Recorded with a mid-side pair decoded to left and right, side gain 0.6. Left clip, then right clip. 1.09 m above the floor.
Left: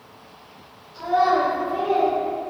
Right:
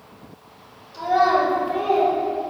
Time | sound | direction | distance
0.9 | a child speaking | 65° right | 1.6 m